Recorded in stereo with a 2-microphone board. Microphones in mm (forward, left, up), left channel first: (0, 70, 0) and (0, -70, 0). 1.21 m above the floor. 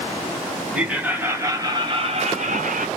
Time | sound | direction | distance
0.7 | laughter | 5° right (ahead or behind) | 1.3 m